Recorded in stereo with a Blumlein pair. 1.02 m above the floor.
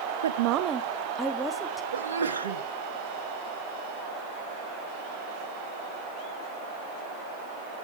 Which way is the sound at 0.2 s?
70° right.